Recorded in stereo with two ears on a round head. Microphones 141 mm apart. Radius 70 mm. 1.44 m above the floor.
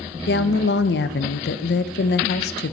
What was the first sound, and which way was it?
A woman speaking, 75° left (ahead or behind).